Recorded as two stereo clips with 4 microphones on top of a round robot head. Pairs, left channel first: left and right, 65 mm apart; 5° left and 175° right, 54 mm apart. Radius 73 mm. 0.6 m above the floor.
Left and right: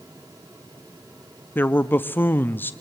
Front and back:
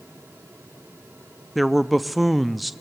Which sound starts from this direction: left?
A man speaking, at 1.6 s.